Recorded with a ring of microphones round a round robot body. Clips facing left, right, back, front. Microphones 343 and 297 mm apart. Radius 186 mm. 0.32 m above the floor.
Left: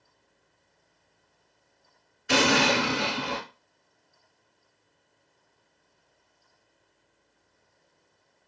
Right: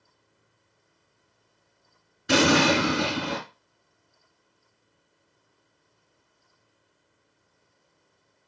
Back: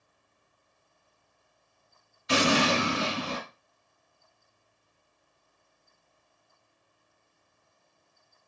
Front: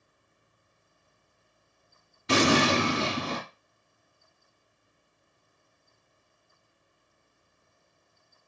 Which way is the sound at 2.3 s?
45° right.